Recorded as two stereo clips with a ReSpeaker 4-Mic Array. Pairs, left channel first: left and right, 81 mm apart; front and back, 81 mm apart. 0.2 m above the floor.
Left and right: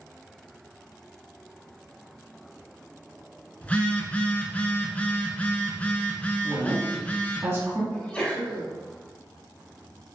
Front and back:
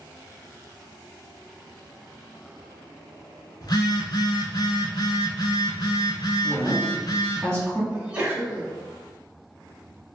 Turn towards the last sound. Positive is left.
turn(degrees=140)